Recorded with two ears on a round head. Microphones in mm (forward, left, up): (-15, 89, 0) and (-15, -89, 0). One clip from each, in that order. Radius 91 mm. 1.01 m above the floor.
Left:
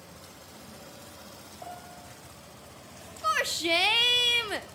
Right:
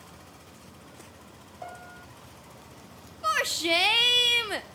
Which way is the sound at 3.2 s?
5° right (ahead or behind).